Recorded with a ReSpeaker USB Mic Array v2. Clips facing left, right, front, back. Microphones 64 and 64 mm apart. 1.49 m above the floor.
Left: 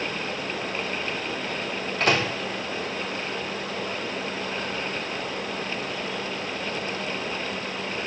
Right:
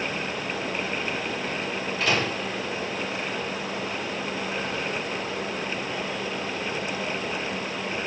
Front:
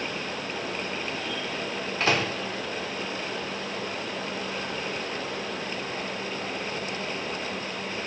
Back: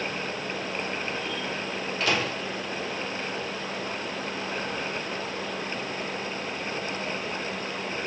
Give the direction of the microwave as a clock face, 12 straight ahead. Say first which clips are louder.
Left 2 dB, front 2 dB; 10 o'clock.